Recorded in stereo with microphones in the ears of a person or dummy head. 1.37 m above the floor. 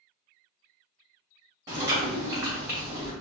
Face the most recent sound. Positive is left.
turn(degrees=-20)  # may be behind; listen again after turning